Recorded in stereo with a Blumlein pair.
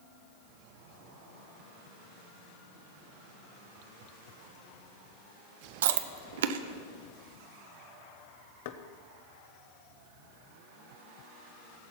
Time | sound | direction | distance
5.8 | chewing | 60° right | 0.9 m
8.7 | knocking | 50° left | 1.0 m